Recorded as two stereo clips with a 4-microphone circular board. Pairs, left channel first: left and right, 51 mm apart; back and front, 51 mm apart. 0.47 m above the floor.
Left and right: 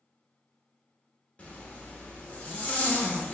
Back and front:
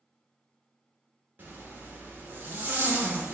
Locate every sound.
1.4 s a zipper: 40° left, 0.9 m